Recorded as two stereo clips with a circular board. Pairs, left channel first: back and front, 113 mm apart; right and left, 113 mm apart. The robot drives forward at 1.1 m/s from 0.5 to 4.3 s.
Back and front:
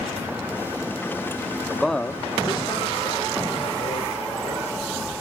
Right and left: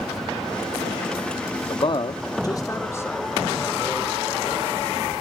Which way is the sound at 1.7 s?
75° right.